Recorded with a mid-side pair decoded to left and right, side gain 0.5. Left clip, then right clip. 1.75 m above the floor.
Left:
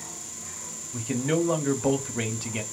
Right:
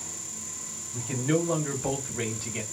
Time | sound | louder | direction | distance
0.9 | a man speaking | left 1 dB | 25° left | 1.0 m